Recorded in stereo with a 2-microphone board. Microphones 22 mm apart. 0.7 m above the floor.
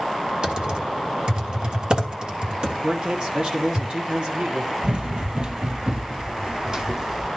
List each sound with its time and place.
0.4 s typing on a keyboard: 45° right (ahead or behind), 1.4 m
2.8 s a man speaking: 45° right (ahead or behind), 1.3 m
4.8 s running footsteps: 50° right (ahead or behind), 1.1 m; by 7.3 s 30° right (ahead or behind), 2 m